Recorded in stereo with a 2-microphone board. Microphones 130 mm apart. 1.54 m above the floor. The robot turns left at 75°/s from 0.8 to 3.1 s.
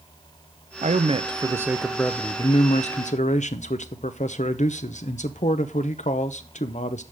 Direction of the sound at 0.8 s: 100° right.